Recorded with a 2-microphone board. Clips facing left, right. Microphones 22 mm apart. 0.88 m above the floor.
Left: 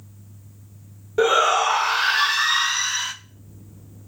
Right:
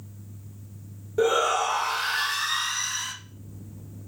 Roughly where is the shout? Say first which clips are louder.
Left 5 dB; left.